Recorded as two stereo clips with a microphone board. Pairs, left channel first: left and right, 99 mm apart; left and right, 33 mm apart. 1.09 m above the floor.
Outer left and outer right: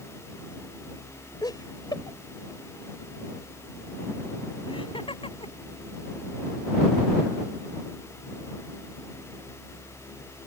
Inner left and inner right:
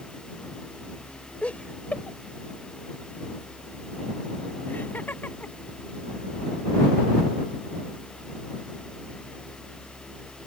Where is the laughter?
40° left (ahead or behind); by 5.5 s 65° left (ahead or behind).